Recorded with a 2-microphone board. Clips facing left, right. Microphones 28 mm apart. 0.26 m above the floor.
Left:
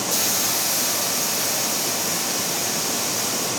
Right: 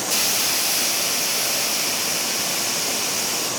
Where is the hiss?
60° right (ahead or behind), 3.5 m.